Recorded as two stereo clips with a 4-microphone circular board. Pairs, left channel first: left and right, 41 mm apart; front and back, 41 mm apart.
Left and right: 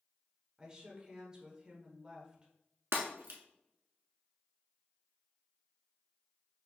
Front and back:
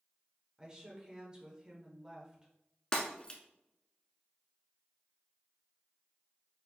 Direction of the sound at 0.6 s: 135° right.